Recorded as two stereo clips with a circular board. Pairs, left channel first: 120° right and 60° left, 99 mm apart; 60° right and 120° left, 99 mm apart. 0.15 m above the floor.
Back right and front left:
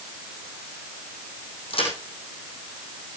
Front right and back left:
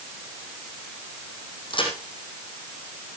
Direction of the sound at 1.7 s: 95° right.